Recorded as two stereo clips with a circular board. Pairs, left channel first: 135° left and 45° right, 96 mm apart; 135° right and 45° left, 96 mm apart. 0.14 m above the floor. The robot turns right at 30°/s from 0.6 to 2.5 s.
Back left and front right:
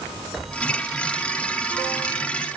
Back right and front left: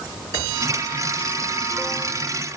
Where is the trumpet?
I don't hear a trumpet.